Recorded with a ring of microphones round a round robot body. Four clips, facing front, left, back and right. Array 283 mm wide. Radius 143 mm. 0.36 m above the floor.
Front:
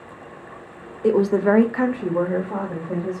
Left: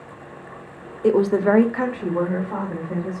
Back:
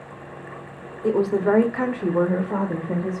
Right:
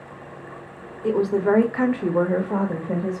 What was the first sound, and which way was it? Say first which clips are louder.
A woman speaking: left 3 dB, front 2 dB; 55° left.